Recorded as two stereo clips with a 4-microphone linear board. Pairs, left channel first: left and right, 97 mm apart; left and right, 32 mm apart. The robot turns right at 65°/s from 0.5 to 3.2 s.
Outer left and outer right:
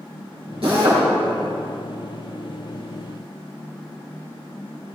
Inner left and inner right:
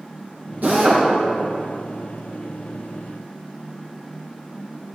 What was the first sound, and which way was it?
A drill, 75° right (ahead or behind).